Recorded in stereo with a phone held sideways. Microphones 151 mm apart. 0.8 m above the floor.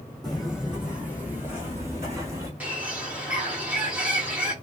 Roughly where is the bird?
Centre.